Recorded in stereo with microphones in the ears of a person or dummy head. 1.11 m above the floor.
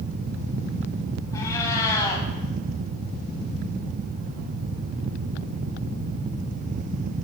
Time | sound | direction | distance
1.3 | a cat meowing | 20° left (ahead or behind) | 2 m